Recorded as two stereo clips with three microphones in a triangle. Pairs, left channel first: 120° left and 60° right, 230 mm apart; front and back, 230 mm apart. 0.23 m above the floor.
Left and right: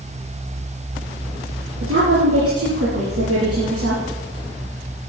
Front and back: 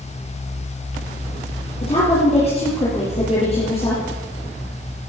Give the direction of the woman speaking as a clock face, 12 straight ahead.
2 o'clock.